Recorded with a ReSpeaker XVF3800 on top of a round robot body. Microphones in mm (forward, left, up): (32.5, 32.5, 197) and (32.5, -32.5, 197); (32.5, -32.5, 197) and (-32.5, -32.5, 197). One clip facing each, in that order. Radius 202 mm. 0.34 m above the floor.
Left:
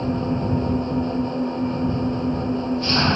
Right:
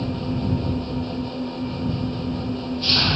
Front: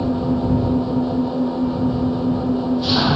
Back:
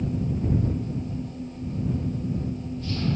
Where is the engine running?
25° left.